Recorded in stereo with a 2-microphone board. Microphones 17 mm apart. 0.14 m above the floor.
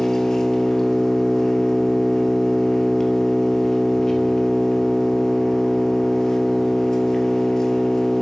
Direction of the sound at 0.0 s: 45° left (ahead or behind).